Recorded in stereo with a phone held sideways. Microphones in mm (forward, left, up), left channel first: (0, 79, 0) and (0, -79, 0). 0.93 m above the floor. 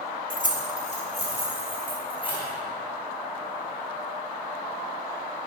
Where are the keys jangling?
60° left (ahead or behind), 0.9 m; by 2.5 s 35° left (ahead or behind), 3.5 m.